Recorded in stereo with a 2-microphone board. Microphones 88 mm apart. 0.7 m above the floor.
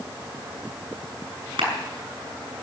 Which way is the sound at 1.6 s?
85° right.